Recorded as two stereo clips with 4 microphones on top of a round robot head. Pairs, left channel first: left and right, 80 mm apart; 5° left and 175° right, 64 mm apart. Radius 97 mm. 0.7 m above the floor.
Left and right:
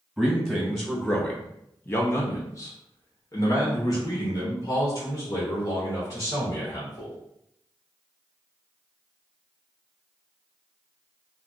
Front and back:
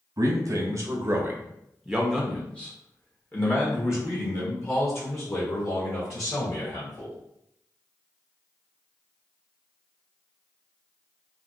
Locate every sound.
0.2 s a man speaking: 165° right, 1.1 m; by 7.2 s 40° left, 3 m